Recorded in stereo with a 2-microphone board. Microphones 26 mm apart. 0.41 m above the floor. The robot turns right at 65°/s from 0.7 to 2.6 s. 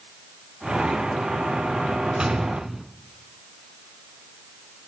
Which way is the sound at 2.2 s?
30° right (ahead or behind).